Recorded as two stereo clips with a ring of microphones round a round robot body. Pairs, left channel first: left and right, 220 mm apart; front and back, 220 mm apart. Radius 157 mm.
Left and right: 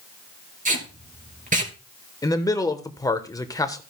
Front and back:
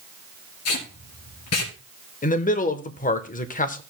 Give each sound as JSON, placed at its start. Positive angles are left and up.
{"t": 0.7, "sound": "tape being pulled", "azimuth_deg": -35, "distance_m": 3.0}
{"t": 2.2, "sound": "a man speaking", "azimuth_deg": 25, "distance_m": 0.9}